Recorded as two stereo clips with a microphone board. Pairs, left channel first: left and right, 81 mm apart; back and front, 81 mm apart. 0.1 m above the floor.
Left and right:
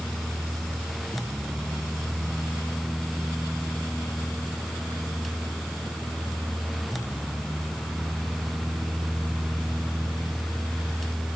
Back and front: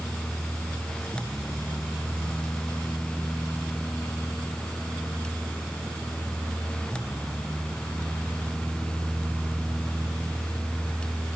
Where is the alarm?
No alarm in this recording.